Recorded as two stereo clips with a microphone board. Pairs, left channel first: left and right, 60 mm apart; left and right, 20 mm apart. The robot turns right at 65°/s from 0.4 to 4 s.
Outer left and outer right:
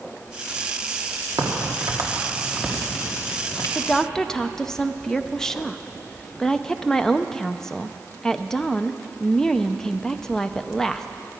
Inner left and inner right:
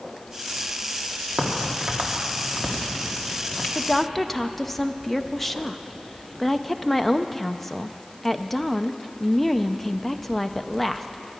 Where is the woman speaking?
20° left (ahead or behind), 0.6 m; by 11.1 s 10° left (ahead or behind), 0.6 m.